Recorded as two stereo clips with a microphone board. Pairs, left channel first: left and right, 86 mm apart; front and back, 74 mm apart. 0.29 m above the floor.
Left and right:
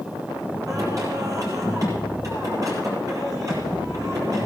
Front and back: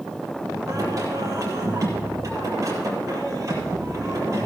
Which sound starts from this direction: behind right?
Singing, at 0.7 s.